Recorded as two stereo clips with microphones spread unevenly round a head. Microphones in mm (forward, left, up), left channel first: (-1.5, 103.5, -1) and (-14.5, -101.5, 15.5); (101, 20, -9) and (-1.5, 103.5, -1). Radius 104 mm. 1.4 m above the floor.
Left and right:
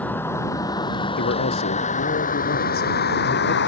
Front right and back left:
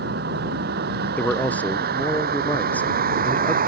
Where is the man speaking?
40° left.